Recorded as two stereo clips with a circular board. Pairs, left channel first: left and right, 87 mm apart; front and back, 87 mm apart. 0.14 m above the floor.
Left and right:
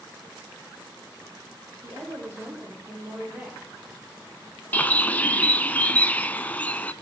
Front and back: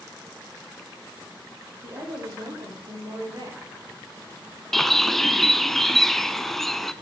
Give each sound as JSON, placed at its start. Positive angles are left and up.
{"t": 1.8, "sound": "a woman speaking", "azimuth_deg": -150, "distance_m": 6.0}
{"t": 4.7, "sound": "a bird", "azimuth_deg": 80, "distance_m": 0.6}